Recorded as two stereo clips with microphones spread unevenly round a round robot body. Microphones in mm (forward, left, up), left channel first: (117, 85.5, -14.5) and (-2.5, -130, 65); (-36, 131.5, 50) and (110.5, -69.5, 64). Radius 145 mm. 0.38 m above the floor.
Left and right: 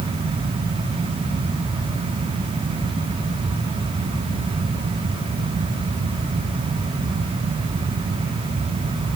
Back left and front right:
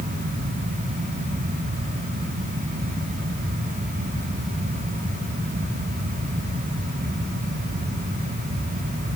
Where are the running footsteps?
I don't hear running footsteps.